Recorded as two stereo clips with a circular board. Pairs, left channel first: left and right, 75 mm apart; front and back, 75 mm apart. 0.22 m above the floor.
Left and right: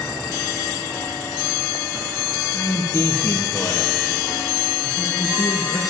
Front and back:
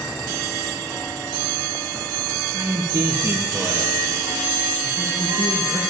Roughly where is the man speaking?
Behind left.